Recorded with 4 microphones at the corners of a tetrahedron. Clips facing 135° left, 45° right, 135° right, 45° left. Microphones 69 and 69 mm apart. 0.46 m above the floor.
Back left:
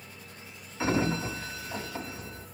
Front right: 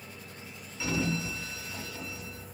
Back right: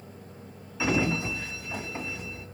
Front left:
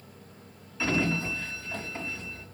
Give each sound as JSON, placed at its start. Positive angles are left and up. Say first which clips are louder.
{"t": 0.8, "sound": "a sliding door", "louder": "back left 4 dB, back right 1 dB", "azimuth_deg": 155, "distance_m": 1.0}